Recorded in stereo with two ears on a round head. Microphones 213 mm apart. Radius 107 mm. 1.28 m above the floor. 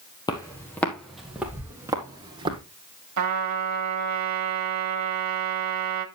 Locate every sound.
0.3 s footsteps: 15° left (ahead or behind), 1.7 m; by 2.6 s 20° right (ahead or behind), 2.5 m
3.2 s a trumpet: 80° right, 1.7 m